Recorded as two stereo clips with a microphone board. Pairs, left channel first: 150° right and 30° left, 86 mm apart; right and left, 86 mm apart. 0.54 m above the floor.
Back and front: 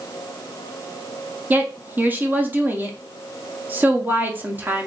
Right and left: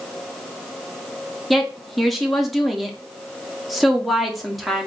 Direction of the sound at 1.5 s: Straight ahead.